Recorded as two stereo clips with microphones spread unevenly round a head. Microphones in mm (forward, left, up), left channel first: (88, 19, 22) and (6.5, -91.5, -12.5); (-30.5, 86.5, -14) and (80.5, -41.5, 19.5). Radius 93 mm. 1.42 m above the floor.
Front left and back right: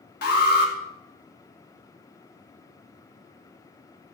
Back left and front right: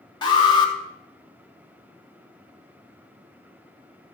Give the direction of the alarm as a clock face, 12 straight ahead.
10 o'clock.